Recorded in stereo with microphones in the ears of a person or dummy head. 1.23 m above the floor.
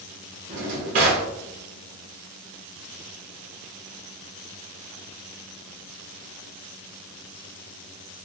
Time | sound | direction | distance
0.5 | a drawer | 45° right (ahead or behind) | 0.6 m